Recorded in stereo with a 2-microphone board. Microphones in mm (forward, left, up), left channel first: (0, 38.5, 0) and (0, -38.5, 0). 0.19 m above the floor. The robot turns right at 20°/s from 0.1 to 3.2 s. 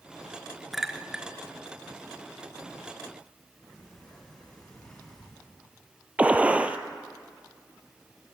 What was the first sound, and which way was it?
A clink, 5° right (ahead or behind).